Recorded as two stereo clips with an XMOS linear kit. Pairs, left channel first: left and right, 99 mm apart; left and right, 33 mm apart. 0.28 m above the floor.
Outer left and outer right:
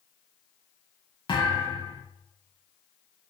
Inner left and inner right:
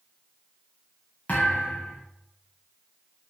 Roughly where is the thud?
Left.